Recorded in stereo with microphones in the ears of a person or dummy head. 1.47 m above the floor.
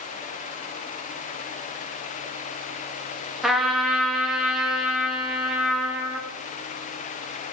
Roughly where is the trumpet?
Centre.